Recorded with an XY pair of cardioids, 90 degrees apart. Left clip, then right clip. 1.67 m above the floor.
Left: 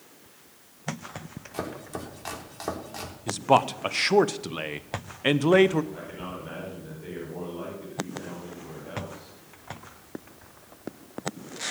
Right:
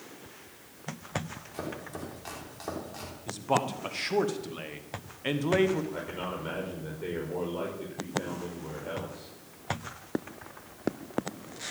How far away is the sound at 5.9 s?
About 5.5 m.